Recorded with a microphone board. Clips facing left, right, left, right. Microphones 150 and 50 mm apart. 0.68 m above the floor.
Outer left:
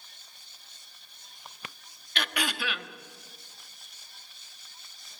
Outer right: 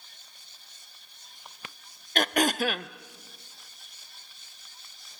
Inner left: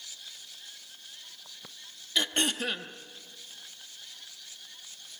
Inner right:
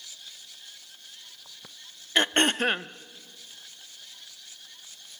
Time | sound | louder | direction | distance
2.1 | throat clearing | outer right 8 dB, inner right 6 dB | 45° right (ahead or behind) | 0.6 m